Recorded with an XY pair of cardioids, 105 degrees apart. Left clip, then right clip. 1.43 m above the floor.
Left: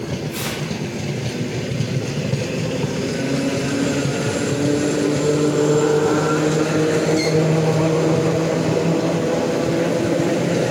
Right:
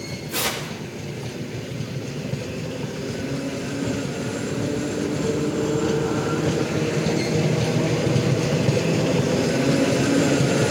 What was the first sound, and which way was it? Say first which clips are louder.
Tearing paper: right 5 dB; 35° right.